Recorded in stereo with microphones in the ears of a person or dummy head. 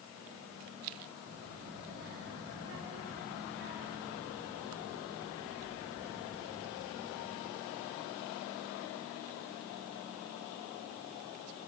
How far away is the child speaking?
About 8.5 m.